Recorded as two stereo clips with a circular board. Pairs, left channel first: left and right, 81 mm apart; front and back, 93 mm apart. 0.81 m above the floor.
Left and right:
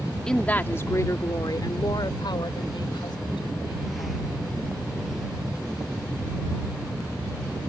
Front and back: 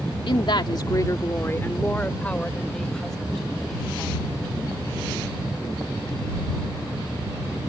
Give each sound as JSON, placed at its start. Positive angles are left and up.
{"t": 0.3, "sound": "a woman speaking", "azimuth_deg": 10}